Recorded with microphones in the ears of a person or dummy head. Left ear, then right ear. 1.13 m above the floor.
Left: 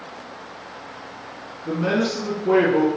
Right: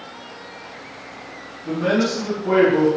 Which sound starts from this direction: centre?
A man speaking, at 1.6 s.